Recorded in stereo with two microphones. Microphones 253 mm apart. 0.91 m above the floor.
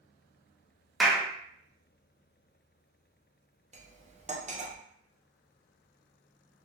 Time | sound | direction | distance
1.0 | a clap | centre (ahead or behind) | 0.5 m
3.7 | cutlery clinking | 25° right (ahead or behind) | 0.5 m